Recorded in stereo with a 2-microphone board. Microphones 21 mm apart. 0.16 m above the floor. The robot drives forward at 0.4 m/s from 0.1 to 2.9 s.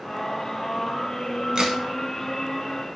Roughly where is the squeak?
I don't hear a squeak.